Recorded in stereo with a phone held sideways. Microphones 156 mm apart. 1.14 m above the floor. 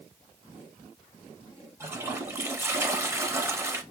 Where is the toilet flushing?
15° right (ahead or behind), 0.7 m.